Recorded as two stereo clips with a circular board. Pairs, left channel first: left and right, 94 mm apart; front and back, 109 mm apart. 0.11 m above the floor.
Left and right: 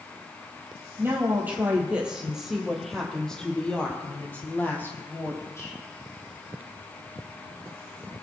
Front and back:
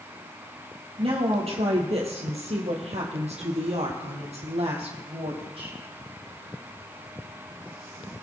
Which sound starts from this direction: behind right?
A woman speaking, at 1.0 s.